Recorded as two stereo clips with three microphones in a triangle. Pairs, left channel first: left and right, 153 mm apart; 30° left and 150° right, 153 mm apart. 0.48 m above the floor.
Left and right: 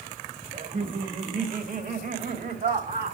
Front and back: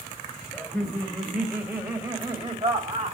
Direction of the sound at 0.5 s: 55° right.